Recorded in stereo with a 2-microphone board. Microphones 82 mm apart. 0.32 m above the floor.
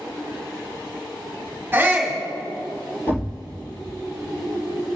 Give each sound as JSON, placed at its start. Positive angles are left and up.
{"t": 1.7, "sound": "a shout", "side_deg": -25, "distance_m": 2.0}
{"t": 3.1, "sound": "a thud", "side_deg": 25, "distance_m": 1.8}